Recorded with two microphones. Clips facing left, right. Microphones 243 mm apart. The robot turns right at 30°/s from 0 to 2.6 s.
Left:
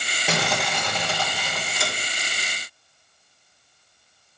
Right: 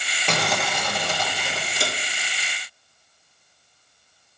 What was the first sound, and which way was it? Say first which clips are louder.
Crumpling: even; 175° left.